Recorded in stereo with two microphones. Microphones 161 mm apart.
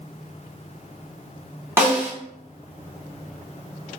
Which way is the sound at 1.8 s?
15° right (ahead or behind).